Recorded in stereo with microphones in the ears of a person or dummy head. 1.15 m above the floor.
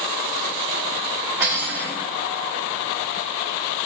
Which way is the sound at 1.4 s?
15° right (ahead or behind).